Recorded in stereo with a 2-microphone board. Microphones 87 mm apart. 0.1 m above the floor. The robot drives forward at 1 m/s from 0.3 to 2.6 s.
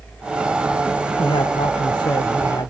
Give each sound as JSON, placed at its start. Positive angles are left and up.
{"t": 1.2, "sound": "a man speaking", "side_deg": 65}